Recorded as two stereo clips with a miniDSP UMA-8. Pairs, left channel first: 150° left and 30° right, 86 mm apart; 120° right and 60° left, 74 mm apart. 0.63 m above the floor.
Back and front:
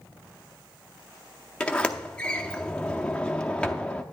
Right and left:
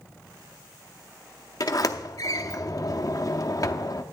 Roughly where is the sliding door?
Behind right.